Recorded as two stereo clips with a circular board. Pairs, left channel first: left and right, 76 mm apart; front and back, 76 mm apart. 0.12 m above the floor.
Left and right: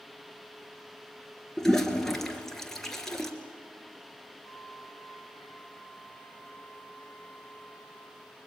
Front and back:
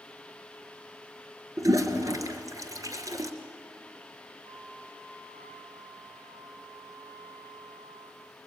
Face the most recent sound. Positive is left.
turn(degrees=170)